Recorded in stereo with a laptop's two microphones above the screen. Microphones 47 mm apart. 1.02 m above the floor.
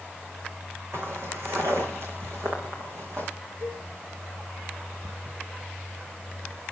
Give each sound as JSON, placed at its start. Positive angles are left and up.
{"t": 0.9, "sound": "footsteps", "side_deg": -60, "distance_m": 4.0}
{"t": 3.6, "sound": "a cowbell", "side_deg": -55, "distance_m": 8.0}